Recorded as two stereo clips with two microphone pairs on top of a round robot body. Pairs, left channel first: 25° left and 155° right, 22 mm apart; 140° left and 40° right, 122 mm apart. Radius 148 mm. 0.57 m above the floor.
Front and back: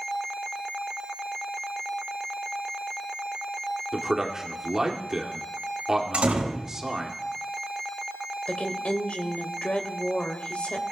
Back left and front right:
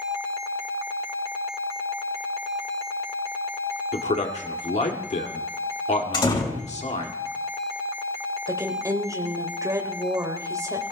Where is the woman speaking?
25° left, 3 m.